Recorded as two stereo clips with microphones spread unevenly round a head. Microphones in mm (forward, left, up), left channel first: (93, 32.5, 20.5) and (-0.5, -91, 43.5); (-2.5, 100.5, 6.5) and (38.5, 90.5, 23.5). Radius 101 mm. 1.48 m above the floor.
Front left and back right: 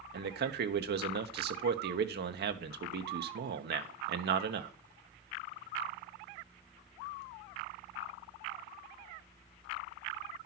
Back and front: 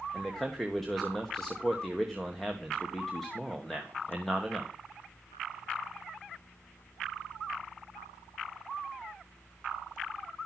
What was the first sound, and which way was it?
A man speaking, 110° right.